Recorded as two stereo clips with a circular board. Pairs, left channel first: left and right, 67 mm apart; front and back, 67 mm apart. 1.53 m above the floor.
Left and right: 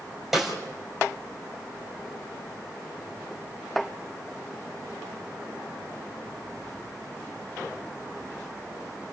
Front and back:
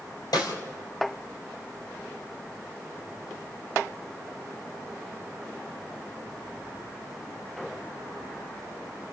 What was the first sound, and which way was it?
A snare drum, 5° right.